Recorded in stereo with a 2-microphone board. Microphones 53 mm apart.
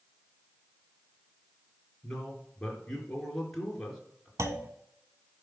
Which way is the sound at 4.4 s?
70° right (ahead or behind).